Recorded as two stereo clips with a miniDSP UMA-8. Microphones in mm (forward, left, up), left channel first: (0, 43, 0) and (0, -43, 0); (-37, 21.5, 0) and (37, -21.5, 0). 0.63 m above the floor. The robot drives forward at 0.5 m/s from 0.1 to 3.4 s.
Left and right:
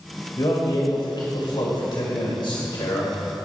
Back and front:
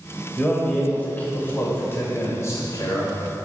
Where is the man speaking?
70° left, 2 m; by 3.5 s 110° left, 2 m.